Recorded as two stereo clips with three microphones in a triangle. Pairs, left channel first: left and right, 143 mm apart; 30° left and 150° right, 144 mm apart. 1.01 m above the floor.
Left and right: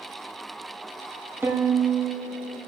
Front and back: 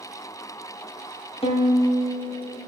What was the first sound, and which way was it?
A violin, 15° right.